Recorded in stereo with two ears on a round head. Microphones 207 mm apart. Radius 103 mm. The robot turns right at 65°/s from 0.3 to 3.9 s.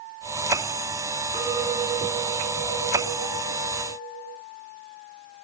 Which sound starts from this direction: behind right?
A clink, at 1.3 s.